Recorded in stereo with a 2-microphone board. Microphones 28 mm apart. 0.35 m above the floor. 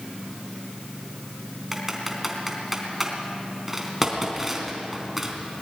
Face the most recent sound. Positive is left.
turn(degrees=-10)  # may be behind; listen again after turning